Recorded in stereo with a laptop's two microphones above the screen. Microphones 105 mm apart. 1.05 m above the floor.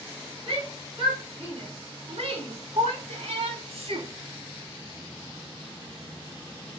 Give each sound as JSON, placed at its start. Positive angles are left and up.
{"t": 0.5, "sound": "a shout", "side_deg": -55, "distance_m": 3.5}